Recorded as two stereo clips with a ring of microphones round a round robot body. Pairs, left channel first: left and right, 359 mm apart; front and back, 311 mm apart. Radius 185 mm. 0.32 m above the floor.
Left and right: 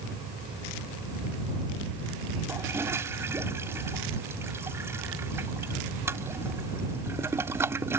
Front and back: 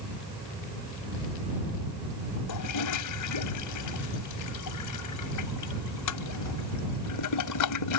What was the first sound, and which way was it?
A toilet flushing, 10° right.